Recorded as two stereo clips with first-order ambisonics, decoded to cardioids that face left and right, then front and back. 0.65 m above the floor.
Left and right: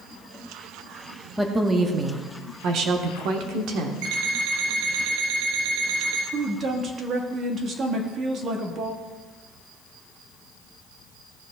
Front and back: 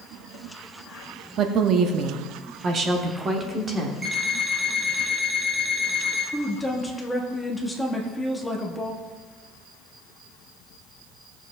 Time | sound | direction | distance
1.4 | a woman speaking | 175° right | 0.8 m
4.0 | an alarm clock | 100° right | 2.5 m
6.3 | a woman speaking | 75° right | 1.2 m